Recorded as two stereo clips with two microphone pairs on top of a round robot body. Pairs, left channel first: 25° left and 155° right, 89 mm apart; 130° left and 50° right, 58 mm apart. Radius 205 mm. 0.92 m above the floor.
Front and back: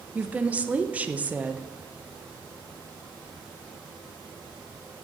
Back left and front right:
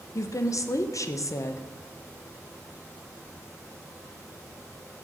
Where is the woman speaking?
130° left, 1.1 m.